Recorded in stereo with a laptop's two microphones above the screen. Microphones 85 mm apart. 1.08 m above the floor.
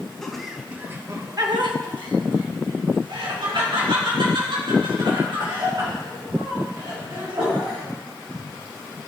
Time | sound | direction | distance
0.2 | laughter | 10° left (ahead or behind) | 1.0 m